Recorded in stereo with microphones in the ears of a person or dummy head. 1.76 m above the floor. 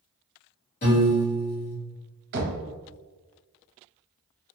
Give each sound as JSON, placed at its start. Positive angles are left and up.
{"t": 0.8, "sound": "a piano", "side_deg": 40, "distance_m": 1.4}
{"t": 2.3, "sound": "knocking", "side_deg": -60, "distance_m": 0.7}